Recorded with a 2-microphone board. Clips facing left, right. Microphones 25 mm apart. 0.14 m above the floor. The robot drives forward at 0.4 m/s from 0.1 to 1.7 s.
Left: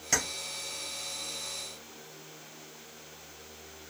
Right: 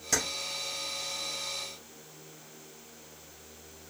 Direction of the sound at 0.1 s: 20° left (ahead or behind).